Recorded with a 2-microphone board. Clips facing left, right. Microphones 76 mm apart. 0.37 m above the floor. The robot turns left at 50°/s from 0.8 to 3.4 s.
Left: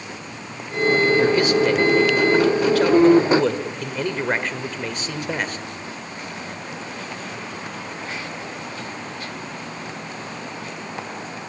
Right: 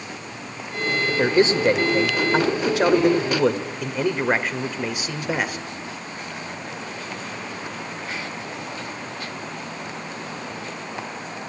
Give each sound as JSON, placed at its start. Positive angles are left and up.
{"t": 1.1, "sound": "a man speaking", "side_deg": -20, "distance_m": 1.5}